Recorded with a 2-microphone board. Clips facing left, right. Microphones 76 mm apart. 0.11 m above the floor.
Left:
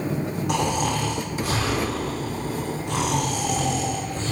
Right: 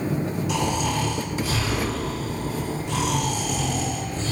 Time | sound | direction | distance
0.5 | snoring | 55° left (ahead or behind) | 2 m